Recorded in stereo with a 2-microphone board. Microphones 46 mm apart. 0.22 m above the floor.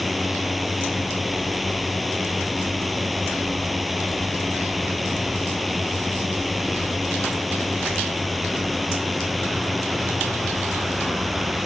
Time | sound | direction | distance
0.0 | a drone | centre (ahead or behind) | ?